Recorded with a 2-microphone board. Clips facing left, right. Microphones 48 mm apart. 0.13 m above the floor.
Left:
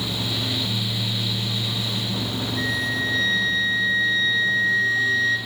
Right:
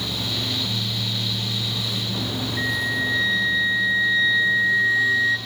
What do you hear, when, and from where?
2.6 s a flute: 20° right (ahead or behind), 0.9 m